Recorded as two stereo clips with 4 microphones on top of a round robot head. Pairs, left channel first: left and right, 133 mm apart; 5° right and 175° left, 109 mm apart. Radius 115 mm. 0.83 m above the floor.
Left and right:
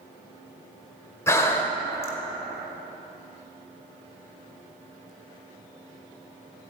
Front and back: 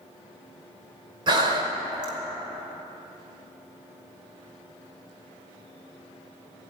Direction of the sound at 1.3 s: 150° left.